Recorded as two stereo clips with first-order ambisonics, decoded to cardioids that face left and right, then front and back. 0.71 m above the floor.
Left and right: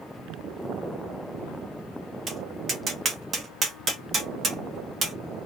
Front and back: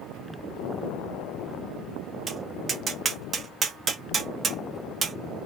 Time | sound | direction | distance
2.3 | tapping | 125° right | 1.2 m